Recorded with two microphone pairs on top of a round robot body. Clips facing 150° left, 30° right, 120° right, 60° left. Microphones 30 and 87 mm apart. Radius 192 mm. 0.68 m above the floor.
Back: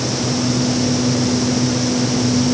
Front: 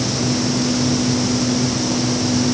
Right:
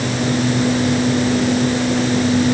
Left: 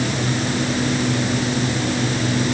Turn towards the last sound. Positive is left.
No sound to turn to.